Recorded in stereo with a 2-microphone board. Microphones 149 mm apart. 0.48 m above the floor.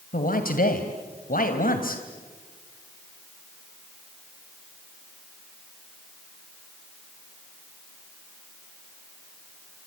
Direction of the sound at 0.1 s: 70° left (ahead or behind).